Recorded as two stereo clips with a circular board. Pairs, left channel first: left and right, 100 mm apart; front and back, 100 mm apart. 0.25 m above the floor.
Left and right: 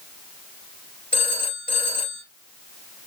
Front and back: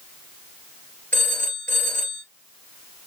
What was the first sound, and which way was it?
A phone ringing, 75° left.